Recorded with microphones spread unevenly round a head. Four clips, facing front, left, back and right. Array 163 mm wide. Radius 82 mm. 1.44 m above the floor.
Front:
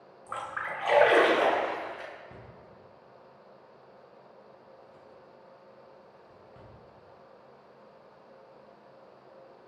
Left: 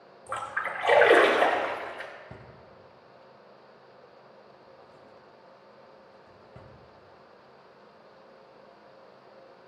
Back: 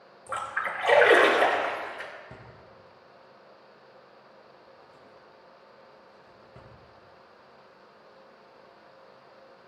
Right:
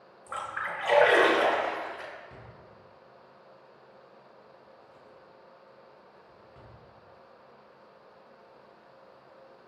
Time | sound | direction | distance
0.3 | a splash | 125° left | 3 m
2.3 | a drawer | 115° left | 3.5 m